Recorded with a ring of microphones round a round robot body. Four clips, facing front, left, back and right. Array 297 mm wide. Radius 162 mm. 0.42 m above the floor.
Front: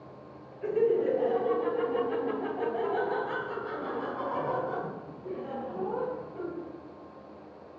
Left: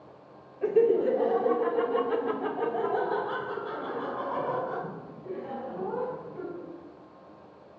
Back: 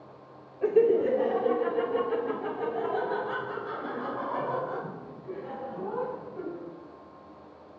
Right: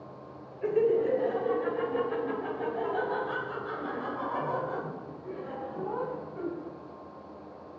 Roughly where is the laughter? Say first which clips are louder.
Left 3 dB, back 4 dB; behind left.